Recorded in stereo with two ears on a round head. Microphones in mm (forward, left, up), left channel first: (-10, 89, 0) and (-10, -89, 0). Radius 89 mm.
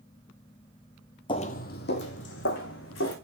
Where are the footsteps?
25° left (ahead or behind), 0.6 m; by 3.1 s 65° left (ahead or behind), 3 m.